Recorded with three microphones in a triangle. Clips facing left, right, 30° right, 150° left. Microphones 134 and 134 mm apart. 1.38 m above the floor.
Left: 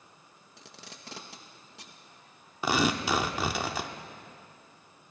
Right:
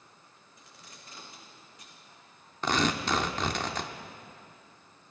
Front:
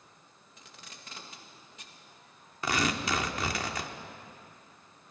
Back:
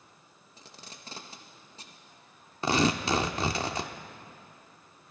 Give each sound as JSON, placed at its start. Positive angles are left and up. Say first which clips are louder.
{"t": 0.6, "sound": "tape being pulled", "louder": "left 5 dB, back 3 dB", "azimuth_deg": 95, "distance_m": 1.6}
{"t": 2.6, "sound": "tearing paper", "louder": "left 1 dB, back 4 dB", "azimuth_deg": 160, "distance_m": 1.0}